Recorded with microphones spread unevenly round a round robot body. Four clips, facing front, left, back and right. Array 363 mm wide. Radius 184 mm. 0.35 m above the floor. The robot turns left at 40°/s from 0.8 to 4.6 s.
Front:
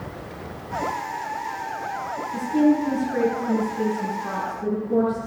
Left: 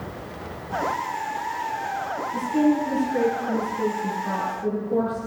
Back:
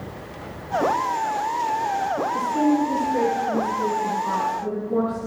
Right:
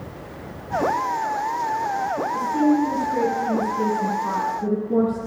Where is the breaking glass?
I don't hear breaking glass.